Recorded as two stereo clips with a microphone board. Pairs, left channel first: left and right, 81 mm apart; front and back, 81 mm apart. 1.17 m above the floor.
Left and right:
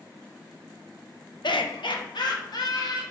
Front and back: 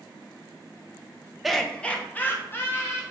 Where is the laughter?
90° left, 1.2 m; by 3.0 s 60° left, 3 m.